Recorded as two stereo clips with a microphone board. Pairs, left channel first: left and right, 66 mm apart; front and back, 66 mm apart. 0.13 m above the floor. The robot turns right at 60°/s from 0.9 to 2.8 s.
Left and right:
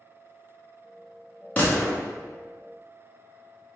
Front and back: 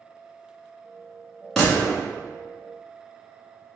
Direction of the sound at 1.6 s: 75° left.